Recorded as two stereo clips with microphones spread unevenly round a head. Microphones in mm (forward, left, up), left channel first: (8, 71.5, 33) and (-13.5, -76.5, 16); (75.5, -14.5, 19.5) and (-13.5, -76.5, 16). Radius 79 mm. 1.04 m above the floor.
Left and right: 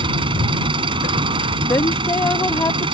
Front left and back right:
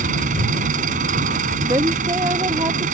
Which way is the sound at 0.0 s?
160° right.